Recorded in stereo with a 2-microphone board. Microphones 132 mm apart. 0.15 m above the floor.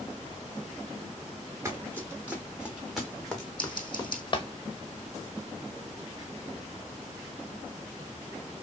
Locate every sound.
1.6 s running footsteps: 15° right (ahead or behind), 2.5 m; by 4.5 s 40° left (ahead or behind), 1.4 m
3.6 s scissors: 35° left (ahead or behind), 3.5 m